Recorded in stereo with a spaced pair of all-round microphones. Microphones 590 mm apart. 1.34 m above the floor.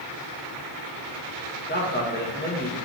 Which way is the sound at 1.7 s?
15° left (ahead or behind).